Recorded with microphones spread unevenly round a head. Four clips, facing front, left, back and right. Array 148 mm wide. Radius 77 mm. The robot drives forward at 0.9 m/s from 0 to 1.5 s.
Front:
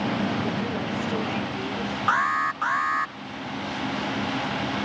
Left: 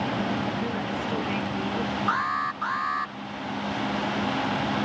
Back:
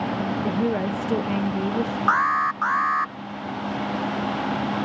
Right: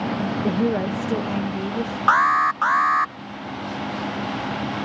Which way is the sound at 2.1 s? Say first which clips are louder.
Right 13 dB, back 2 dB; 85° right.